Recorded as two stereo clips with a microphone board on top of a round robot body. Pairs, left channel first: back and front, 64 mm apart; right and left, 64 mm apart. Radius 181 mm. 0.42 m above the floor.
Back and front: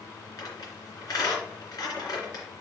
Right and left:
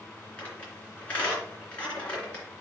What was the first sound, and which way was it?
A squeak, 160° right.